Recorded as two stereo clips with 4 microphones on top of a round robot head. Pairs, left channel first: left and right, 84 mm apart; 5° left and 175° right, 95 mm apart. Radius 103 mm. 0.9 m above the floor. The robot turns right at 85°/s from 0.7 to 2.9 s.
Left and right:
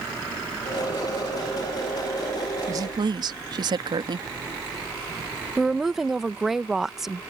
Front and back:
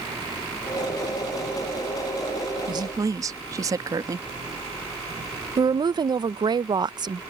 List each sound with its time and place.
2.7 s a woman speaking: 140° right; by 4.3 s 120° right
5.6 s a woman speaking: 175° right